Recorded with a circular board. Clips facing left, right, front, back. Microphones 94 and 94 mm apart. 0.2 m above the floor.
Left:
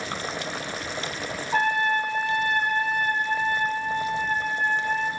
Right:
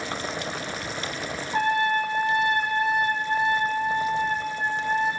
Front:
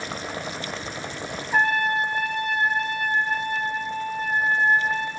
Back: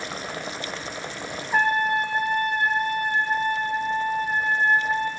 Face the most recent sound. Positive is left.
turn(degrees=100)